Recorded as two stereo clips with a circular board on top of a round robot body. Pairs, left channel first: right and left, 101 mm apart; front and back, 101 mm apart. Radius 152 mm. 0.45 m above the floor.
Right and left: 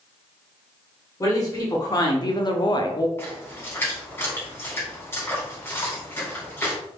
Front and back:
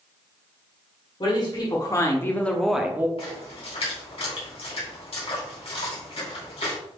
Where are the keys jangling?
I don't hear keys jangling.